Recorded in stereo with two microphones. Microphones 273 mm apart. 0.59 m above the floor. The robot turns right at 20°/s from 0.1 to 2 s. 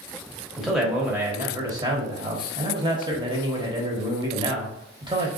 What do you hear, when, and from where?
0.6 s a man speaking: centre (ahead or behind), 1.2 m; by 5.3 s 15° right (ahead or behind), 1.2 m